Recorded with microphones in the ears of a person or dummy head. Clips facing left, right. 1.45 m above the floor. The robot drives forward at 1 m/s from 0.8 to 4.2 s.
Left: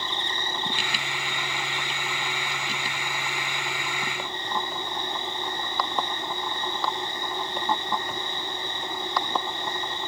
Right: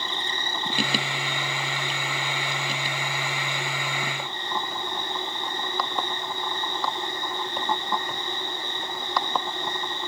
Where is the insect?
65° right (ahead or behind), 1.2 m; by 10.1 s 15° right (ahead or behind), 4 m.